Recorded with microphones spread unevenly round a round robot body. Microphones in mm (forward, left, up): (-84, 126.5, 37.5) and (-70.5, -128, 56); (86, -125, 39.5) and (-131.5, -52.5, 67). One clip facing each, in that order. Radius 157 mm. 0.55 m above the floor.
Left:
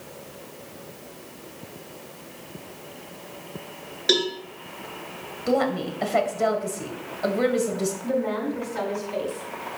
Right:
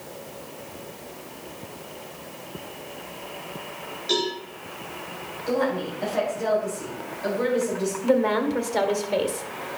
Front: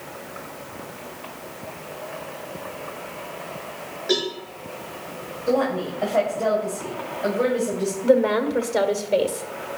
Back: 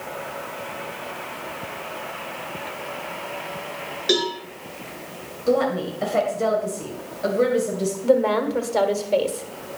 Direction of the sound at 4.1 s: 100° left.